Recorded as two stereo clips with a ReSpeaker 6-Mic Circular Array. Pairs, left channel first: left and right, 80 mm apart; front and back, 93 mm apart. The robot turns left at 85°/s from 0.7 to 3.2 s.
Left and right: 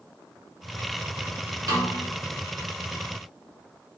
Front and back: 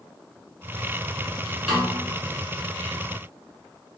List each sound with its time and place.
1.7 s a snare drum: 95° right, 1.7 m; by 2.0 s 125° right, 1.7 m